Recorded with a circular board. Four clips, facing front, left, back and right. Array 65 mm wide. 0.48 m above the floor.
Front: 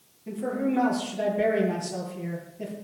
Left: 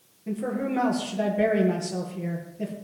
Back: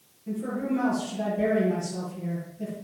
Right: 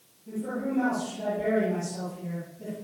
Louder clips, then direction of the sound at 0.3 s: Left 3 dB, front 1 dB; 65° left.